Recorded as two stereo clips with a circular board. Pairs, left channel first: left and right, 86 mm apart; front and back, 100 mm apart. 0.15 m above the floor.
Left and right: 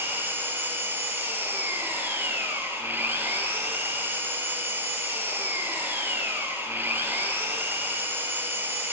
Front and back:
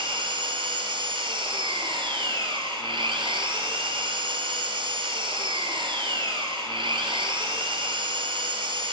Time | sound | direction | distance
0.0 | an engine running | 155° right | 1.2 m